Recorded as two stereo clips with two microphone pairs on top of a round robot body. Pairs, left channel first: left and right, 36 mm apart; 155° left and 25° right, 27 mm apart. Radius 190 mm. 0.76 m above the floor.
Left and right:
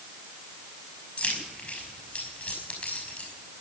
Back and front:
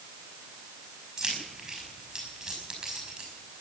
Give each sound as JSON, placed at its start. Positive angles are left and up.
{"t": 1.2, "sound": "keys jangling", "azimuth_deg": 45, "distance_m": 5.5}